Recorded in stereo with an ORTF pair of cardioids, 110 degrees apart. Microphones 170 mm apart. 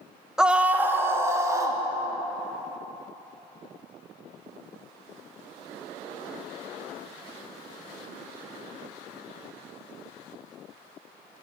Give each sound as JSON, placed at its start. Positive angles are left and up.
{"t": 0.4, "sound": "a scream", "azimuth_deg": -5, "distance_m": 0.6}